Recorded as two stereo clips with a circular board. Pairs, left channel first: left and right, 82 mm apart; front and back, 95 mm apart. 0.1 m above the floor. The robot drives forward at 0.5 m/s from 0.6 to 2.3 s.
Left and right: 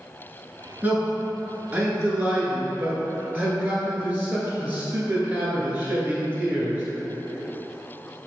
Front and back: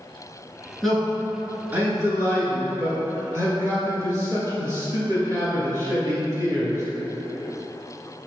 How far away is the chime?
I don't hear a chime.